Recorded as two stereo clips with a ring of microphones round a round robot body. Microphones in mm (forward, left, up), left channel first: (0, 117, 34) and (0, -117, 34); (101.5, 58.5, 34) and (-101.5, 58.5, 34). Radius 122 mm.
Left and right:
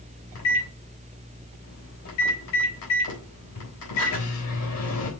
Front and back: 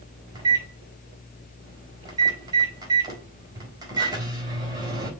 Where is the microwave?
110° left, 3.5 m.